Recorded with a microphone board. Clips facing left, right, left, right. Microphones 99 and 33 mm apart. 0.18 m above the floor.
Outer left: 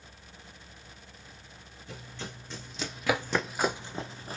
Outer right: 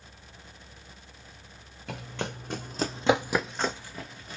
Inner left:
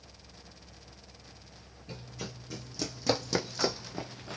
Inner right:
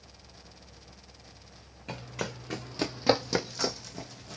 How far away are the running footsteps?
About 0.9 m.